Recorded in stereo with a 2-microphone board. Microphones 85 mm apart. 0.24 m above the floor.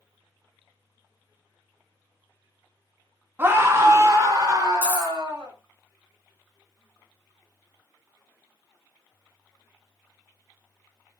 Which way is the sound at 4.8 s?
25° right (ahead or behind).